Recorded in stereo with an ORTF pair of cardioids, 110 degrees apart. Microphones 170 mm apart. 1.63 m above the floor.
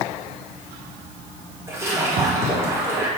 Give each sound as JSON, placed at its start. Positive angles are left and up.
{"t": 1.7, "sound": "a splash", "azimuth_deg": -20, "distance_m": 4.0}